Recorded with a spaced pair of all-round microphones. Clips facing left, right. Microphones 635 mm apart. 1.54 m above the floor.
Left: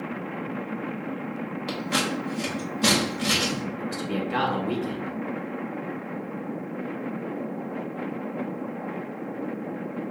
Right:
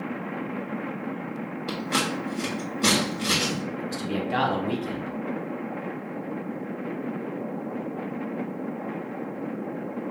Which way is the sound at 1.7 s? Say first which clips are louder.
Even; 20° left (ahead or behind).